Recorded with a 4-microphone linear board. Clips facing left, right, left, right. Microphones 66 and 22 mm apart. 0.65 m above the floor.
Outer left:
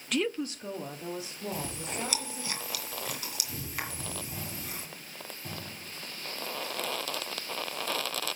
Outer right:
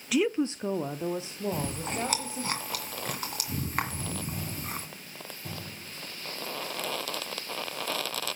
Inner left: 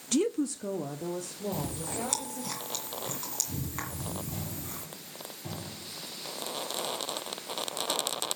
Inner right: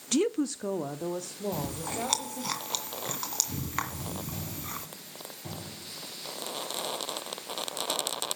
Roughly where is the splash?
I don't hear a splash.